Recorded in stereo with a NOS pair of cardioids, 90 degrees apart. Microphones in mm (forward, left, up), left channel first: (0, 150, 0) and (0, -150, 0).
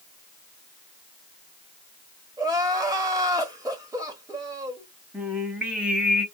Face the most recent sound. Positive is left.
turn(degrees=-5)